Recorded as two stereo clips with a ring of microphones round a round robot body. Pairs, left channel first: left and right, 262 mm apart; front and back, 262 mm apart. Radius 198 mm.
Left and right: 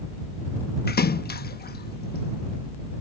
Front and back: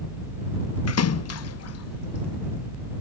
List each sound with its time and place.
0.9 s a splash: 30° left